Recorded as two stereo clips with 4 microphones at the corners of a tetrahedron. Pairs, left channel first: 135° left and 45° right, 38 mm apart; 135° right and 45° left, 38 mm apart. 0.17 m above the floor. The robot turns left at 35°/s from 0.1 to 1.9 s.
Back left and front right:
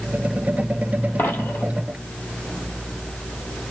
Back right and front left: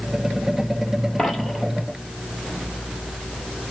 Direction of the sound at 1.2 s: 140° left.